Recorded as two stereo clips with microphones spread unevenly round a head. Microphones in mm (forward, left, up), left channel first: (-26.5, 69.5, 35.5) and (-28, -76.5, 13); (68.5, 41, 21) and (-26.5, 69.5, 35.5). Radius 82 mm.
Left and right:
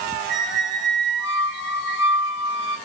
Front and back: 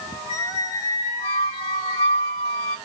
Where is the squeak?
15° right, 1.2 m.